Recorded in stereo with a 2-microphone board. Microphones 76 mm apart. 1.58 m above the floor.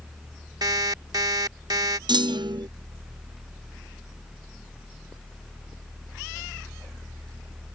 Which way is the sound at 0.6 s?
60° right (ahead or behind).